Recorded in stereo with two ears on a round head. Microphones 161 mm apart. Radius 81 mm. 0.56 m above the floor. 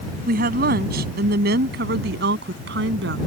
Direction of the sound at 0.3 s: 55° right (ahead or behind).